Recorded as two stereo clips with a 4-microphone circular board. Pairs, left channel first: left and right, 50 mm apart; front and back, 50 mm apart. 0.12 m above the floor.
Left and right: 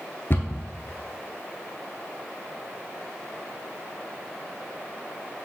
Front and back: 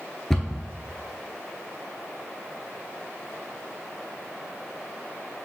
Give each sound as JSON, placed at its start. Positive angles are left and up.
{"t": 0.3, "sound": "a cupboard door", "azimuth_deg": 80, "distance_m": 0.6}